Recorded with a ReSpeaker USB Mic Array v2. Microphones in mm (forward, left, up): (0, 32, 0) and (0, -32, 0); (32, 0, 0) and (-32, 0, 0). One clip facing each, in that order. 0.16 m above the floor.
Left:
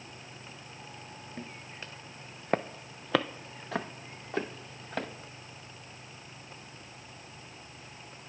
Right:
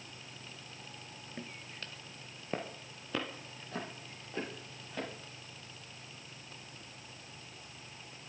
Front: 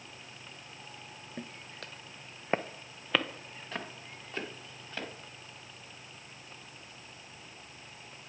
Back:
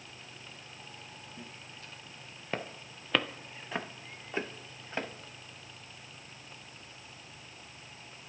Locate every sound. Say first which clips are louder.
1.4 s footsteps: left 2 dB, front 4 dB; straight ahead, 1.0 m; by 5.1 s 115° left, 2 m